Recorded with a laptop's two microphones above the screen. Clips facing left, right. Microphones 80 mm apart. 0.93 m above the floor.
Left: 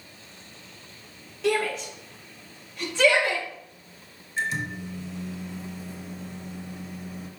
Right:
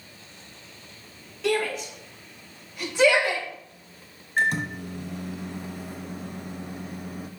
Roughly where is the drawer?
I don't hear a drawer.